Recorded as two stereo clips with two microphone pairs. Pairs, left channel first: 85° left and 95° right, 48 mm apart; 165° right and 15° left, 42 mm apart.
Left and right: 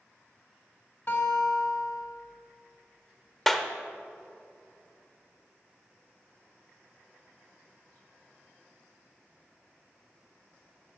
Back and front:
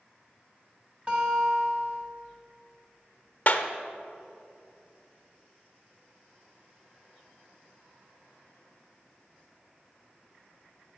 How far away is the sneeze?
I don't hear a sneeze.